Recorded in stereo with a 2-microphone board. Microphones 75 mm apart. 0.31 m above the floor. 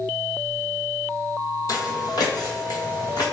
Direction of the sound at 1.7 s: 60° left (ahead or behind).